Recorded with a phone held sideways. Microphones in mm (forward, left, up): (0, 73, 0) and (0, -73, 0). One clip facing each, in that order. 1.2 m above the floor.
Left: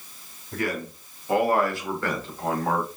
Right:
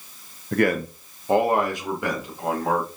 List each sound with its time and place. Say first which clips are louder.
0.5 s a man speaking: right 8 dB; 75° right (ahead or behind), 0.5 m; by 2.9 s 5° right (ahead or behind), 2 m